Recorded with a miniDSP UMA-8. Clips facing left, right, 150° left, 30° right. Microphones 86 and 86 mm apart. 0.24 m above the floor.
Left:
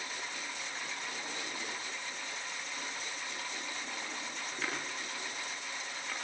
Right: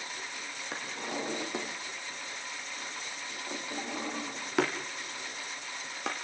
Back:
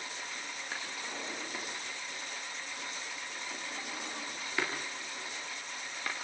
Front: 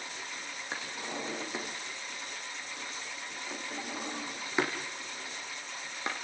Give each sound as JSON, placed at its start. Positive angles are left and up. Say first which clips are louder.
{"t": 0.7, "sound": "a drawer", "louder": "right 5 dB, front 4 dB", "azimuth_deg": -100, "distance_m": 4.0}